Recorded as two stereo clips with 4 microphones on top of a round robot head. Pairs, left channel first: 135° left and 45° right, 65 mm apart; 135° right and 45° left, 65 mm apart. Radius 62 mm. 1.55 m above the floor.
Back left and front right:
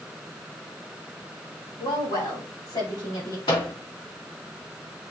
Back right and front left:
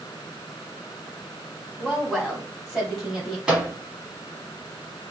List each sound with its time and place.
1.8 s a woman speaking: 135° left, 3.5 m; by 3.4 s 130° left, 2 m
3.5 s a microwave: 125° left, 2.5 m